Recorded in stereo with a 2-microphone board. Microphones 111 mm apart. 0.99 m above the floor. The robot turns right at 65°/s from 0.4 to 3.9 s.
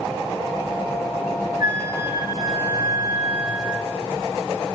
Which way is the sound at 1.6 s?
50° right.